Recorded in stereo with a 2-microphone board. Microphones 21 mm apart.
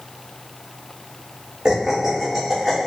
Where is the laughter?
25° right (ahead or behind), 1.2 m; by 2.9 s 5° left (ahead or behind), 1.2 m.